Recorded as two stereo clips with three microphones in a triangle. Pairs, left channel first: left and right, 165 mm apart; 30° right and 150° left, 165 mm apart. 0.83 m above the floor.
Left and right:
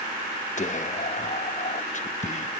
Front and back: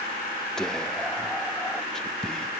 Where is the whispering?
55° left, 0.7 m.